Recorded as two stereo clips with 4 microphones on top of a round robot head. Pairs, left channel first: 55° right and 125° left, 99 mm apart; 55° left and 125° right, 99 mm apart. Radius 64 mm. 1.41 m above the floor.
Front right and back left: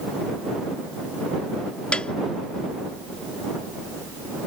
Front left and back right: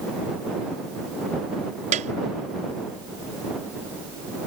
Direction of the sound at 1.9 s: 135° right.